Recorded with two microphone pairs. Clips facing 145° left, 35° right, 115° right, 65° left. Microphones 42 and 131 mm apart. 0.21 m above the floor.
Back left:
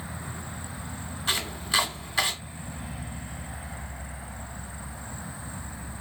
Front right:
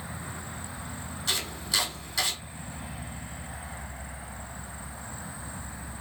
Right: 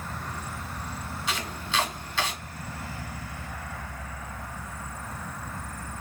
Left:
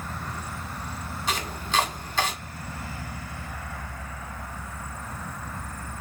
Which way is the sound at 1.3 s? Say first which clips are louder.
Back left 3 dB, left 3 dB; 100° left.